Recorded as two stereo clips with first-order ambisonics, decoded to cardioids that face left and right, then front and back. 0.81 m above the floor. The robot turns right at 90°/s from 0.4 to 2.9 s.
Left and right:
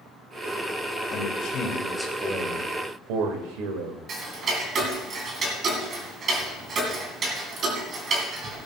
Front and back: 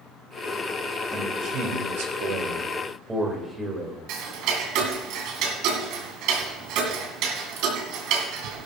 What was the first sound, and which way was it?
A man speaking, 95° left.